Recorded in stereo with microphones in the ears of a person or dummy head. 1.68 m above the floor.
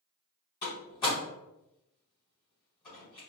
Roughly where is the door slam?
Left.